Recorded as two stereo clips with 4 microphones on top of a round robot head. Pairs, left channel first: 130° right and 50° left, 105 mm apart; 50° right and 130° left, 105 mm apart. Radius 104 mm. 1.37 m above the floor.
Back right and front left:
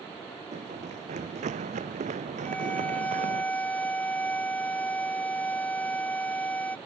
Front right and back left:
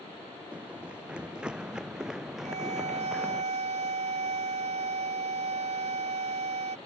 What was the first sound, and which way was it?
Running footsteps, 55° left.